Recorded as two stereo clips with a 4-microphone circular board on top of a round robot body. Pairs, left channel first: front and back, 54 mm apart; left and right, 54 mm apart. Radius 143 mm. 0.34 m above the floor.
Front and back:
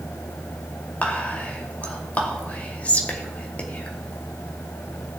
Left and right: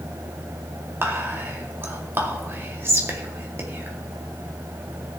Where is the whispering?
60° right, 2.5 m.